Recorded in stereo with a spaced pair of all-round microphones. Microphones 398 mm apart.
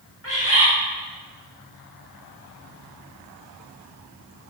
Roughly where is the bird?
Left.